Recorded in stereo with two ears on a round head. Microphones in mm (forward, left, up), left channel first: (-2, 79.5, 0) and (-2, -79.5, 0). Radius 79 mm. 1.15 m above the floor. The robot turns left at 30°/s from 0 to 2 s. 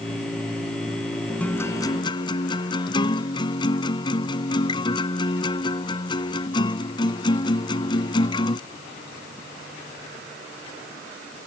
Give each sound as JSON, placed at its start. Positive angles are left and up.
{"t": 1.4, "sound": "a guitar", "side_deg": 10}